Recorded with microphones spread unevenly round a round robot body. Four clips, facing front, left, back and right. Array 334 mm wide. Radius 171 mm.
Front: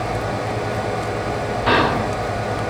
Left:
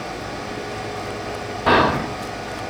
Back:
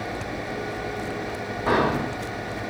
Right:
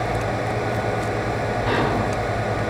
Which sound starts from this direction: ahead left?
Whispering, at 1.7 s.